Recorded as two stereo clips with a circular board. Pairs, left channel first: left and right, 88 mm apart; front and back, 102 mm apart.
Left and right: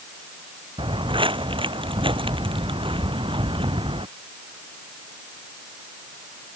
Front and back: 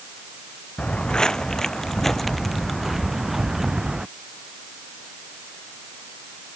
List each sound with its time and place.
0.8 s footsteps: 80° right; by 4.1 s 95° right